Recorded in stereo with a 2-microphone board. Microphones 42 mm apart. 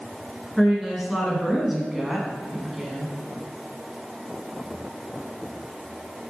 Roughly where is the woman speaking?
Centre.